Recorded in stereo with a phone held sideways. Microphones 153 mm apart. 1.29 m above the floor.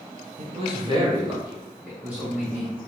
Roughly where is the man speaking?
Right.